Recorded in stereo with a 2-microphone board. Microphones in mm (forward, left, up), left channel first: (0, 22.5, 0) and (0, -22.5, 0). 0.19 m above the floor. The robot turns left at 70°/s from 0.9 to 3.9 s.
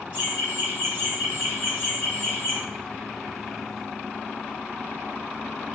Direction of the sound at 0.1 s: 130° right.